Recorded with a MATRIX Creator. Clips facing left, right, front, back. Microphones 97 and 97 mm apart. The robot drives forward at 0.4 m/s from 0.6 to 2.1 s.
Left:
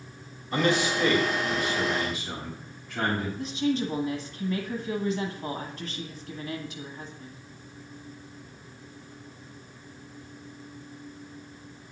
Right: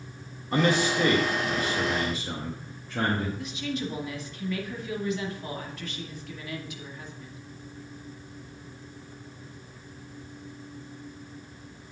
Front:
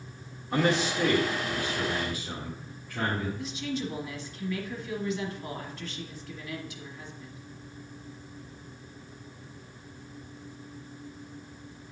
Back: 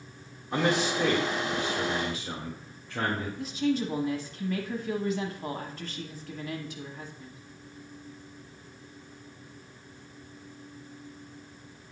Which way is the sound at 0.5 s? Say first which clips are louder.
Right 1 dB, even; 95° right.